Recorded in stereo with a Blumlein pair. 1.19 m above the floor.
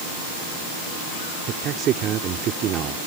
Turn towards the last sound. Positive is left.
turn(degrees=-30)